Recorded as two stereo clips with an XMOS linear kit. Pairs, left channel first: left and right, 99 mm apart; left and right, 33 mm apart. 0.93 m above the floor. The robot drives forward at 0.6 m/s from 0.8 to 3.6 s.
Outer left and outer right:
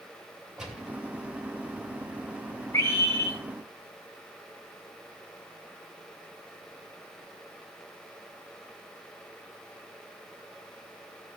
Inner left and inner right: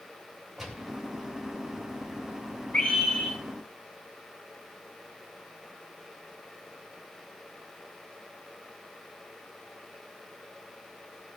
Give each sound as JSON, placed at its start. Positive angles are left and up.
{"t": 0.6, "sound": "a gunshot", "side_deg": -5, "distance_m": 3.0}
{"t": 2.7, "sound": "a scream", "side_deg": 35, "distance_m": 2.5}